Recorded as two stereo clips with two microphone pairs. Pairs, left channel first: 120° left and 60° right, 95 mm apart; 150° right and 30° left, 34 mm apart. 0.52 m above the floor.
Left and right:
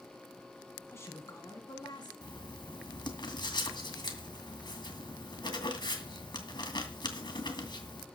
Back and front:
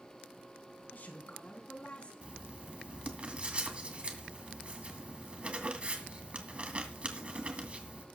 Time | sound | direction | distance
0.9 | a man speaking | straight behind | 4 m
2.2 | writing | 85° left | 2.5 m